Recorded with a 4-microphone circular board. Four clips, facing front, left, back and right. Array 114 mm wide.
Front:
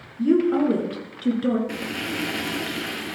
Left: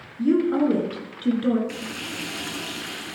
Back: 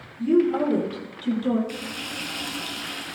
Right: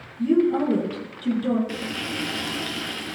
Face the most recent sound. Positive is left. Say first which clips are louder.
# right 3 dB, front 5 dB
turn(degrees=-15)